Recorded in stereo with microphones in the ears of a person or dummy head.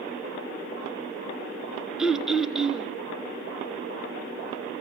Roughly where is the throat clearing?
Centre.